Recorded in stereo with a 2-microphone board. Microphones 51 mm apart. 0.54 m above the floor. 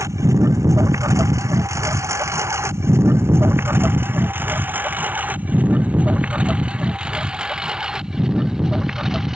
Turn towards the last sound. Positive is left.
turn(degrees=-5)  # may be behind; listen again after turning